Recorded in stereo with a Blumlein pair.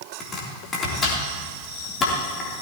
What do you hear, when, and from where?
0.2 s chopping: 25° left, 3.5 m